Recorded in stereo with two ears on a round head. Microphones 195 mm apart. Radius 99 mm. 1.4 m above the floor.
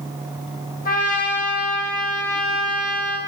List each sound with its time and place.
0.8 s a trumpet: 40° left (ahead or behind), 1.1 m